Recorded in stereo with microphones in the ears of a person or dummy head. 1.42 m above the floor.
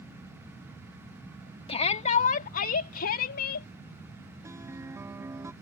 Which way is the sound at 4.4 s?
20° right (ahead or behind).